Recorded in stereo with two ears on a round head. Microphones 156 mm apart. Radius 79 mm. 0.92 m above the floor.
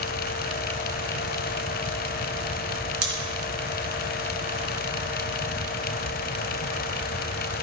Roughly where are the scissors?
Right.